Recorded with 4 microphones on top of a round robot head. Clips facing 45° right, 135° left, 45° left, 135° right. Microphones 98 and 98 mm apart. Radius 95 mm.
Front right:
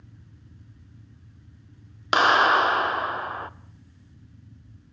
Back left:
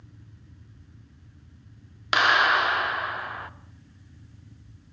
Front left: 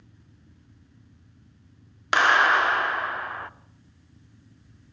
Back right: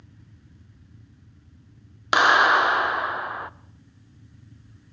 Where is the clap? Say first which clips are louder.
Front right 3 dB, back right 2 dB; 75° right, 0.9 m.